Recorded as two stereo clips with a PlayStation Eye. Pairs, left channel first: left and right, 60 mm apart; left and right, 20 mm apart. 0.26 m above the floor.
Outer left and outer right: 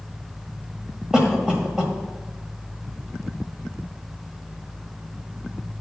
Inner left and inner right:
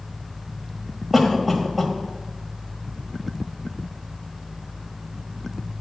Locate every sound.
1.1 s a cough: 10° right (ahead or behind), 1.4 m